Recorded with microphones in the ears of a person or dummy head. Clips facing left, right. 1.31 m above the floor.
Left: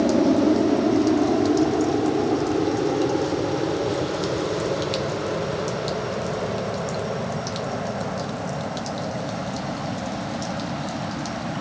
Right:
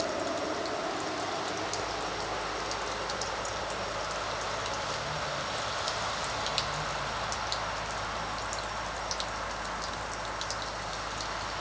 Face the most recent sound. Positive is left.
turn(degrees=80)